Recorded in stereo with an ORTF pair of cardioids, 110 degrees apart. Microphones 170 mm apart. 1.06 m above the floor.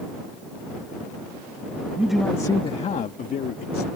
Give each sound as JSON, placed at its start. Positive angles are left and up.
{"t": 2.0, "sound": "a man speaking", "azimuth_deg": -10}